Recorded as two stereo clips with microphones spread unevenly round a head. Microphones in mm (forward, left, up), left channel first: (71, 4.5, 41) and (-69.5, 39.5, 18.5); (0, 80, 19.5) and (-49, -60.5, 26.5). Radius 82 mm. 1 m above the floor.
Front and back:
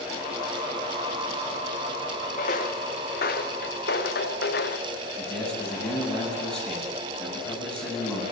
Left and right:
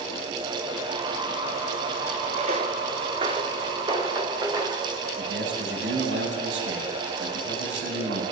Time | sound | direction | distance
2.4 | footsteps | 55° right | 3 m
5.2 | a man speaking | 100° right | 9 m